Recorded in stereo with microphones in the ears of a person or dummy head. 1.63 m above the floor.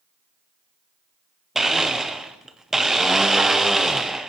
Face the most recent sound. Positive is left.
turn(degrees=-10)  # may be behind; listen again after turning